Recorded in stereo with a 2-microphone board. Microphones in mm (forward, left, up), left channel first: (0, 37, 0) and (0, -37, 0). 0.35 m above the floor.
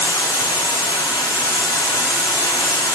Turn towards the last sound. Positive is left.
turn(degrees=80)